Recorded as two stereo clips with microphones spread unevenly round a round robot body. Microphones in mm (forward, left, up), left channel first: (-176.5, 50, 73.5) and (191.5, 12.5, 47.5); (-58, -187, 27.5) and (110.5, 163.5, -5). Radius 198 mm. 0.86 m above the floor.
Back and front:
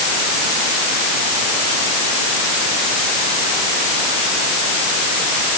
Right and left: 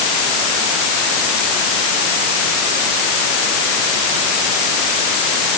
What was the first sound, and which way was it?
Only background noise.